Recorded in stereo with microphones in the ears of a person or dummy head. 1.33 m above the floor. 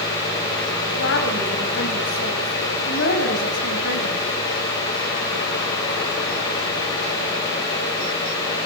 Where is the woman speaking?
60° left (ahead or behind), 7.5 m.